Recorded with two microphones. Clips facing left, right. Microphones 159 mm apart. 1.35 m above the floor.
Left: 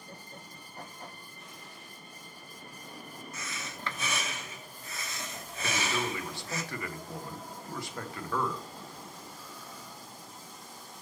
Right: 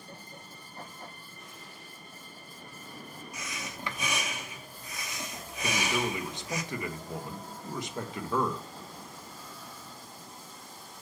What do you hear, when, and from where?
3.3 s breathing: 15° right (ahead or behind), 0.9 m
5.6 s a man speaking: 20° right (ahead or behind), 1.0 m